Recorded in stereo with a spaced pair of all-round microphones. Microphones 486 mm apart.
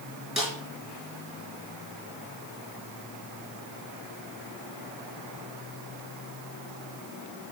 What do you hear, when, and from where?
0.4 s a snare drum: centre (ahead or behind), 5 m